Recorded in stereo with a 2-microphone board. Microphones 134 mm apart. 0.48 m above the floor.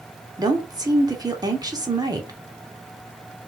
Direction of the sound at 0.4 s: 30° right (ahead or behind).